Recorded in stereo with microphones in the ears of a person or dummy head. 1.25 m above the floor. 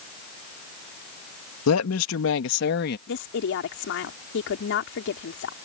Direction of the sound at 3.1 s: 60° left (ahead or behind).